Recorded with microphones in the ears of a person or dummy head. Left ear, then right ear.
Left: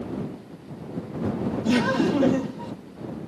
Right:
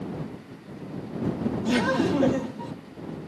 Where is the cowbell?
I don't hear a cowbell.